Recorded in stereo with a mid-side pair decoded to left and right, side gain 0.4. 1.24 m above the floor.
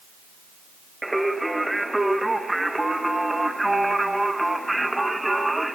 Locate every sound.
1.0 s singing: 10° right, 0.8 m